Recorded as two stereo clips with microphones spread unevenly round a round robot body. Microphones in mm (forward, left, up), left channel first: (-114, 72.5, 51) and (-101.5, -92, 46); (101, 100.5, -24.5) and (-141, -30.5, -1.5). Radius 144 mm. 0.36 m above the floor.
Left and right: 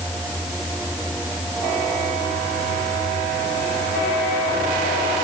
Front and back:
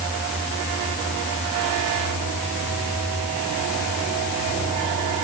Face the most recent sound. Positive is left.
No sound to turn to.